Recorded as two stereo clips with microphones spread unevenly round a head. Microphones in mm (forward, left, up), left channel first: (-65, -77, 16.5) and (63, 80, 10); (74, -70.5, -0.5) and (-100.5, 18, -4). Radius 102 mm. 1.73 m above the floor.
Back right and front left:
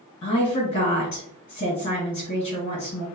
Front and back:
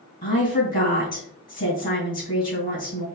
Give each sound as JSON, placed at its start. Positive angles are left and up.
{"t": 0.2, "sound": "a woman speaking", "azimuth_deg": -75, "distance_m": 1.9}